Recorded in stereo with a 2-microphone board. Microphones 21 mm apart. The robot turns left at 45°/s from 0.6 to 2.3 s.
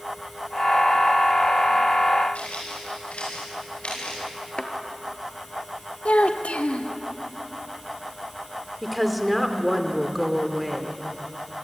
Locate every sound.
2.4 s footsteps: 70° left (ahead or behind), 9 m; by 4.2 s 55° left (ahead or behind), 9 m
4.6 s a thud: 40° left (ahead or behind), 2.5 m
6.0 s a child speaking: 70° left (ahead or behind), 1.7 m
8.8 s a woman speaking: 5° left (ahead or behind), 2.5 m